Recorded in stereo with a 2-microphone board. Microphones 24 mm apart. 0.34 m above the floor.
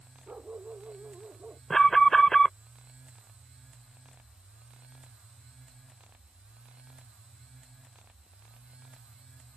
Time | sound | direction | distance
0.3 | a dog barking | 65° right (ahead or behind) | ?
1.7 | an alarm | 15° left (ahead or behind) | ?